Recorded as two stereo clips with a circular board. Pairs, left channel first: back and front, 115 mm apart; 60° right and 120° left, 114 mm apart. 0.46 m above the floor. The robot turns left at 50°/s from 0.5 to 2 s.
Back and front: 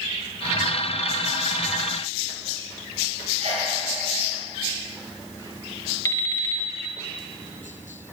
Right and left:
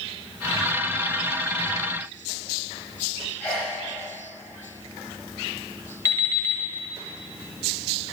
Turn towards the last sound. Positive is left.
turn(degrees=-120)